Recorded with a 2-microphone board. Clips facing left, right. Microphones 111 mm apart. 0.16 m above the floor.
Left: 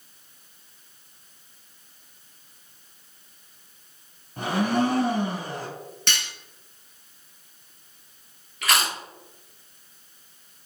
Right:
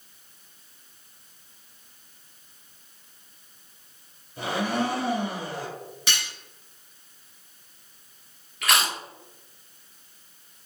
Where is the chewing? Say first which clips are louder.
Even; centre (ahead or behind), 0.7 m.